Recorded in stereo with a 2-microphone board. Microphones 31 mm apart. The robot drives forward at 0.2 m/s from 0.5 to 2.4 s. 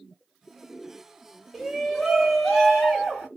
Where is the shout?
Centre (ahead or behind), 1.3 m.